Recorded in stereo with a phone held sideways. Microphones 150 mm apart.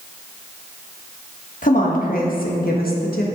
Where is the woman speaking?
60° left (ahead or behind), 1.5 m; by 3.3 s 85° left, 1.6 m.